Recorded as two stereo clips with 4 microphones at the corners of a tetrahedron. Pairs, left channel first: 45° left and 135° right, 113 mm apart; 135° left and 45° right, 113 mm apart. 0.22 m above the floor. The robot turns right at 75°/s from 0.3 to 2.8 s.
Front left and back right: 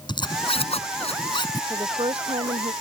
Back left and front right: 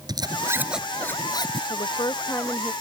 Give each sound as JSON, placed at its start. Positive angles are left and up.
{"t": 0.1, "sound": "a zipper", "azimuth_deg": 5}
{"t": 1.7, "sound": "a woman speaking", "azimuth_deg": 160}